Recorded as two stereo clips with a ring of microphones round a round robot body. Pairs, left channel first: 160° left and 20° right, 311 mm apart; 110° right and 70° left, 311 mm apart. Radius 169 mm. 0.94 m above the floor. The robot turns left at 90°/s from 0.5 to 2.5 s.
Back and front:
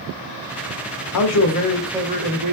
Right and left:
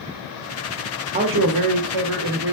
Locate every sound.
1.1 s a man speaking: 135° left, 1.0 m; by 2.5 s 10° left, 1.0 m